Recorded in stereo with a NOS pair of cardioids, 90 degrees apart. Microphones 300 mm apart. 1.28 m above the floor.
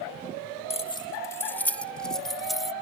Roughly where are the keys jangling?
Ahead.